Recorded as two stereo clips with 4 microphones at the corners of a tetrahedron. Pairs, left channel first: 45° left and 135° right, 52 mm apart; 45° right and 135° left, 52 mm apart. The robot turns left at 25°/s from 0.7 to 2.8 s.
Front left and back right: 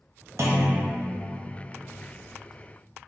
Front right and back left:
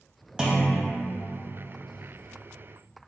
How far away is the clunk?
About 0.6 m.